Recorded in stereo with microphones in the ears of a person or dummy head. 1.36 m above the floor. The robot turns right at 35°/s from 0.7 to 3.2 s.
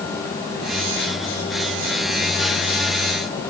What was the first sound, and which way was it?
Only background noise.